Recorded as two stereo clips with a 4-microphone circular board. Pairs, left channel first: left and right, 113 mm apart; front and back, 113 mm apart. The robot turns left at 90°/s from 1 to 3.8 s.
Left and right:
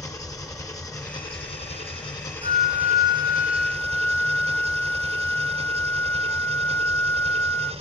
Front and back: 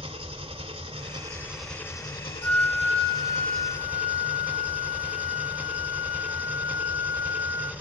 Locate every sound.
0.0 s an engine running: 145° left, 1.9 m; by 7.8 s 105° right, 1.9 m
2.4 s a flute: 70° right, 1.3 m; by 7.7 s 165° left, 1.3 m